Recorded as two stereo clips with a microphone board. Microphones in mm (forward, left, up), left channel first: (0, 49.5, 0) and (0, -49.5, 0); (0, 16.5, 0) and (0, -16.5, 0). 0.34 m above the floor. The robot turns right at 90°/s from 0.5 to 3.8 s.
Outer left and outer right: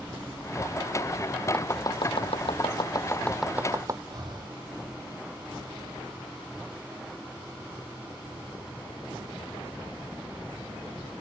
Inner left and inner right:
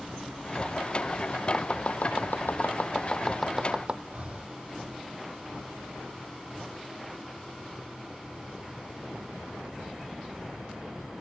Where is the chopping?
15° left (ahead or behind); by 4.0 s 35° right (ahead or behind).